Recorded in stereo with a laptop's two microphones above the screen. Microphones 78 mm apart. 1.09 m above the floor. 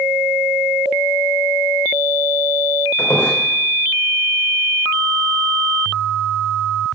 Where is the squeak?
25° left (ahead or behind), 2 m.